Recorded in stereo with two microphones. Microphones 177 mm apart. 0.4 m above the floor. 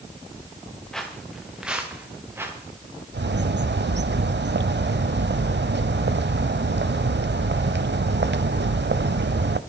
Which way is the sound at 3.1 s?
90° right.